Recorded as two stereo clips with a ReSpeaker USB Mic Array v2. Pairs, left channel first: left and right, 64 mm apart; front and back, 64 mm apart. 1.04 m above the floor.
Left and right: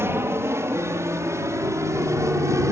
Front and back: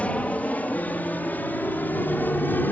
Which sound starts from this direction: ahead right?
An aircraft, at 0.0 s.